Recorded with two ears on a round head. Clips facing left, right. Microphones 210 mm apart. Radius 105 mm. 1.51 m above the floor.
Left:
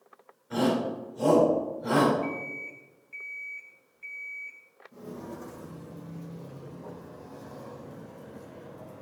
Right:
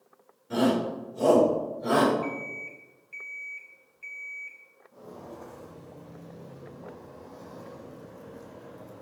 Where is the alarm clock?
10° right (ahead or behind), 2 m.